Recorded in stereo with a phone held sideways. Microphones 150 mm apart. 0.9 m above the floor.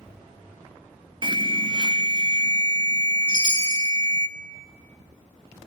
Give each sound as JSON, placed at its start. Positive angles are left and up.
{"t": 1.2, "sound": "an alarm", "side_deg": -35, "distance_m": 0.8}
{"t": 3.3, "sound": "a chime", "side_deg": -35, "distance_m": 8.0}